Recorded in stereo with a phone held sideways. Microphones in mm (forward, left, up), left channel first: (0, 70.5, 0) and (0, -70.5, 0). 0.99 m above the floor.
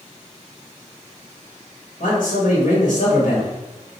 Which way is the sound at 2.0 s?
80° left.